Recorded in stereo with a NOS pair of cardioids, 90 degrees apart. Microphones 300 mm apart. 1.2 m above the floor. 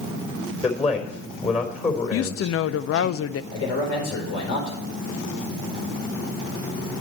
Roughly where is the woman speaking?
Ahead left.